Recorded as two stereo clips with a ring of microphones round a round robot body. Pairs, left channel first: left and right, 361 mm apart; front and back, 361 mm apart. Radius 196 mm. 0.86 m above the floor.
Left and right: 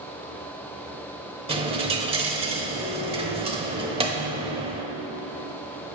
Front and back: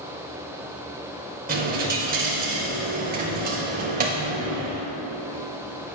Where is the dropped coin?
145° right, 0.6 m.